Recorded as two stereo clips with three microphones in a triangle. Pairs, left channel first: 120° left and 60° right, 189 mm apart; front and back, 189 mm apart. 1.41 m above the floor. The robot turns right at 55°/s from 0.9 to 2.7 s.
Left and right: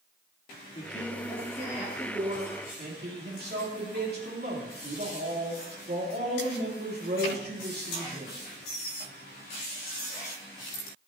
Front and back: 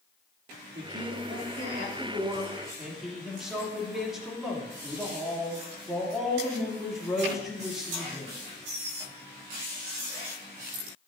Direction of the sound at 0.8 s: 170° left.